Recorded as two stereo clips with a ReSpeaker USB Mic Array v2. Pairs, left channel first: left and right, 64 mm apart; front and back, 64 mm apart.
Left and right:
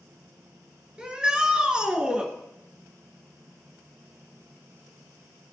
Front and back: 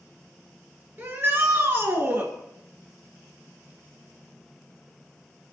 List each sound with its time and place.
1.0 s a shout: 155° right, 1.9 m